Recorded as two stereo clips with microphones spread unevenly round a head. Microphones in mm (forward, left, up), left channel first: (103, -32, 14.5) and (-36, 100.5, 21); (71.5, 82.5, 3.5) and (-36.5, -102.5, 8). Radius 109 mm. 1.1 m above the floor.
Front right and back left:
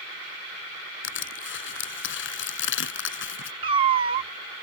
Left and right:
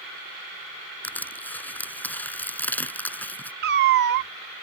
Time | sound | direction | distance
1.0 | crushing | 25° right | ?
3.6 | a cat meowing | 160° right | ?